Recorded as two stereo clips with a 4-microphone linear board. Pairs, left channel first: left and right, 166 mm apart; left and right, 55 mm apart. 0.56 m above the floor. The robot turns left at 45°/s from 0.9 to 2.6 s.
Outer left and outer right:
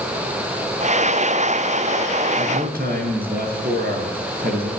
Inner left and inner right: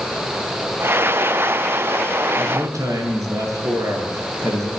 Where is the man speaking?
55° right (ahead or behind), 8.5 m; by 4.7 s 65° right (ahead or behind), 8.5 m.